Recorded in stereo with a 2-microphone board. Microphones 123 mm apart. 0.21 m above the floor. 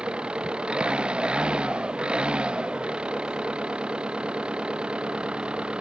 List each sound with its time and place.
0.0 s an engine running: 10° right (ahead or behind)